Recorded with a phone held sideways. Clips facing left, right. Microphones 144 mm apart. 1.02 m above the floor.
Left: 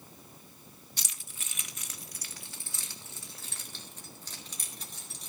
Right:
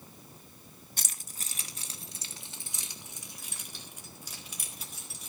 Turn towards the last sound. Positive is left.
turn(degrees=-5)  # may be behind; listen again after turning